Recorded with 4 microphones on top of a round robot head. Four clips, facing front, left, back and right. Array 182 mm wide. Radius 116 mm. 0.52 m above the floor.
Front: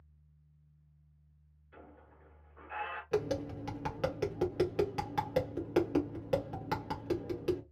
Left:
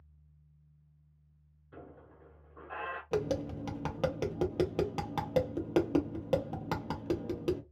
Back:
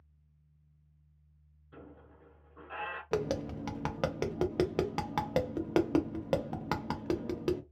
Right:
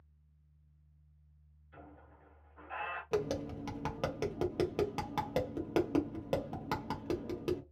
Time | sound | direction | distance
1.7 | a squeak | 120° left | 1.0 m
3.1 | tapping | 165° left | 1.0 m